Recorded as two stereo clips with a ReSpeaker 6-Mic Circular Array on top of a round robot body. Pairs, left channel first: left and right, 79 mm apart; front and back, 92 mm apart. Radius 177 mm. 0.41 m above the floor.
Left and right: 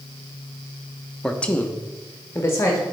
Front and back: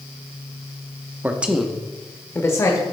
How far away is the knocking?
I don't hear knocking.